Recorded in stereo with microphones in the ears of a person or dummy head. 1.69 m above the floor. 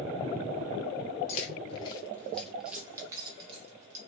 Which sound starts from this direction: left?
Keys jangling, at 1.3 s.